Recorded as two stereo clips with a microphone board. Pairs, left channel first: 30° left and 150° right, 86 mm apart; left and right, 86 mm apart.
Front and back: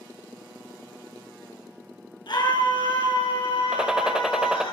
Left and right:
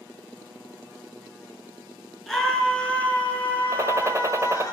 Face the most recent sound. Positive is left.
turn(degrees=-75)